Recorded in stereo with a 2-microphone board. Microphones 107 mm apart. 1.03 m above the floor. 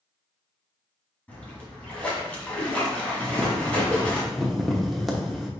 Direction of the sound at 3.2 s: Centre (ahead or behind).